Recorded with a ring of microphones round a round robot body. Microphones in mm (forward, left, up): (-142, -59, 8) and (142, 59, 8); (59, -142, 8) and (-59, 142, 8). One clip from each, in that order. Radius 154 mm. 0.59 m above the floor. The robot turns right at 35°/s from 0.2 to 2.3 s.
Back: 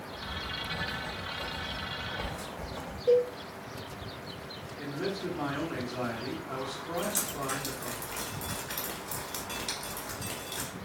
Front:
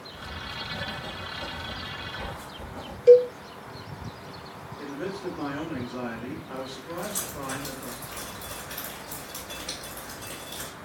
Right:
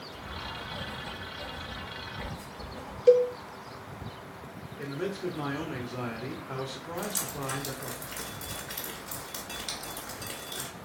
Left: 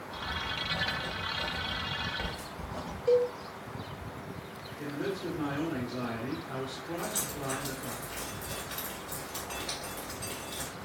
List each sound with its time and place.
0.1 s writing: 105° left, 1.6 m; by 3.0 s 175° left, 1.6 m
3.1 s a cowbell: 35° right, 0.6 m
4.8 s a man speaking: 75° right, 1.0 m
7.0 s dripping: 100° right, 1.8 m